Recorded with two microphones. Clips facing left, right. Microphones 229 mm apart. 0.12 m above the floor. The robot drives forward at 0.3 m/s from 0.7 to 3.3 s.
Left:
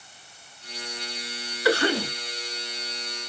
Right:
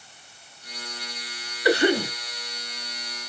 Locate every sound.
1.6 s a cough: 20° right (ahead or behind), 1.1 m